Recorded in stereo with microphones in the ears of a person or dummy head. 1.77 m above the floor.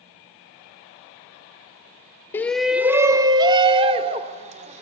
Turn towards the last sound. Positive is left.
turn(degrees=-40)  # may be behind; listen again after turning